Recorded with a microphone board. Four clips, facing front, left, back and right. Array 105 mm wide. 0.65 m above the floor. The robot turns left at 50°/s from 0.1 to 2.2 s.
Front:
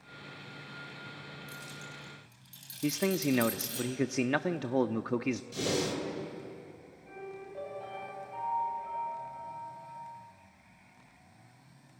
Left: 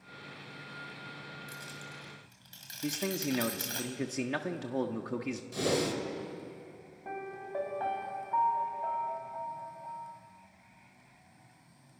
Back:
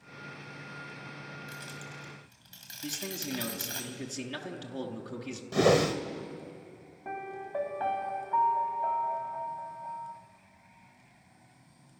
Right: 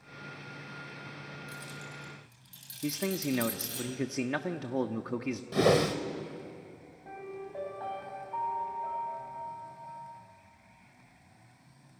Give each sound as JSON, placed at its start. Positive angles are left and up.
{"t": 1.5, "sound": "keys jangling", "azimuth_deg": 170, "distance_m": 2.5}
{"t": 2.8, "sound": "a man speaking", "azimuth_deg": -10, "distance_m": 0.9}
{"t": 5.5, "sound": "a whoosh", "azimuth_deg": -145, "distance_m": 1.5}
{"t": 7.0, "sound": "a piano", "azimuth_deg": 155, "distance_m": 3.0}